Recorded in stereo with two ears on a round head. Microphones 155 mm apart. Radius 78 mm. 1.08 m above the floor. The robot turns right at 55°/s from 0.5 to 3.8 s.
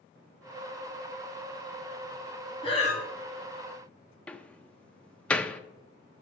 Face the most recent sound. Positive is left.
turn(degrees=5)  # may be behind; listen again after turning